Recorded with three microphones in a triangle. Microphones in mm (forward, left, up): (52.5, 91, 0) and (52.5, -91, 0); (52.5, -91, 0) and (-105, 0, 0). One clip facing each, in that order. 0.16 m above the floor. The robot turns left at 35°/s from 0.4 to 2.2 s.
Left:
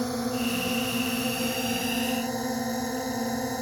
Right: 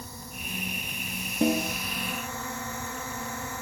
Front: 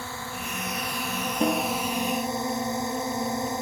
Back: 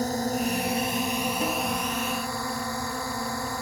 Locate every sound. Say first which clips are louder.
0.0 s a drone: left 16 dB, back 11 dB; 100° left; by 3.6 s 40° left
1.4 s a snare drum: right 3 dB, front 3 dB; 85° right; by 1.8 s 100° right